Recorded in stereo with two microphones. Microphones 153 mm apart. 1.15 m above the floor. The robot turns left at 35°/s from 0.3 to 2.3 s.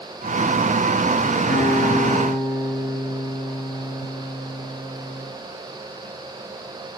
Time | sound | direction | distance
1.5 | a guitar | 15° left (ahead or behind) | 4.5 m